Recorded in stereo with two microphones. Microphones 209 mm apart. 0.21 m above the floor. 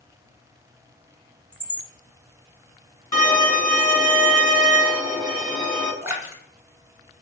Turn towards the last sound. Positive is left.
turn(degrees=-10)  # may be behind; listen again after turning